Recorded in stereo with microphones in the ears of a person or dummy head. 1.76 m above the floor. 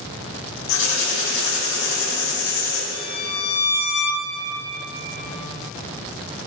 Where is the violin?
80° left, 1.4 m.